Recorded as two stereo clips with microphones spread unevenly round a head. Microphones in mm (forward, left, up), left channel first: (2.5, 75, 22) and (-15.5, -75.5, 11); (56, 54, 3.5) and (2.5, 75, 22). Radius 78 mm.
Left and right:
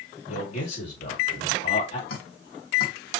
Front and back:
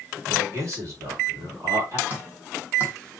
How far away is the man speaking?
About 2.5 m.